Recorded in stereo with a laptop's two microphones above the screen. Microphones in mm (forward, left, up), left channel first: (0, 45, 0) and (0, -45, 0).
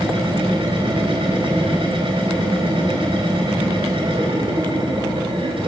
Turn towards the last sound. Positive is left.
turn(degrees=-85)